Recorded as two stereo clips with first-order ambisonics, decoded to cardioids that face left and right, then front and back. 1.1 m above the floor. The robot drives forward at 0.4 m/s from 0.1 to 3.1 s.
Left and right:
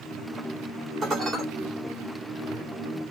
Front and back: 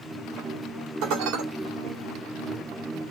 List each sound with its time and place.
1.0 s dishes clattering: 160° right, 2 m